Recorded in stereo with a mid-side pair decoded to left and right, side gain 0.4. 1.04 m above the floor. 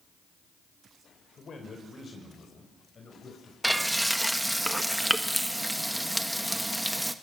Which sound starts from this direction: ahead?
Frying, at 3.6 s.